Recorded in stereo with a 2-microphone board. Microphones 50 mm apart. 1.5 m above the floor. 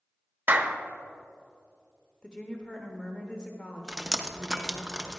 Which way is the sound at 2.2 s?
20° left (ahead or behind).